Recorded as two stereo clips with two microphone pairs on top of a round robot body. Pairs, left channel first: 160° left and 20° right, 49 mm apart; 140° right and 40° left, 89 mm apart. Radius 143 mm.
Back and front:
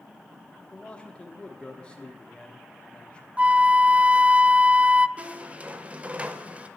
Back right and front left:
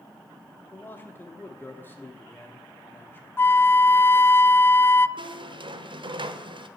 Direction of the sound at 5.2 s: 40° left.